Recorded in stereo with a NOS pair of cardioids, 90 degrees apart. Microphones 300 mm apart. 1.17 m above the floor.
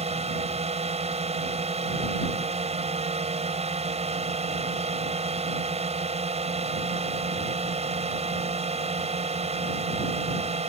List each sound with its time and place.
0.0 s a drone: 20° right